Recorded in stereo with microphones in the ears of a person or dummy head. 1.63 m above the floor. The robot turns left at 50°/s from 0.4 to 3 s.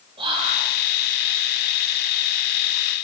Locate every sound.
0.2 s whispering: 30° right (ahead or behind), 0.5 m; by 0.7 s 45° right (ahead or behind), 0.5 m